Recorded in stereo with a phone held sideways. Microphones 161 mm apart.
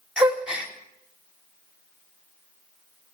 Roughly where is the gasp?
Centre.